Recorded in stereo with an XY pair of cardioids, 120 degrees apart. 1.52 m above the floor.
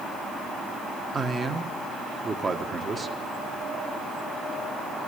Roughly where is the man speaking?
Ahead right.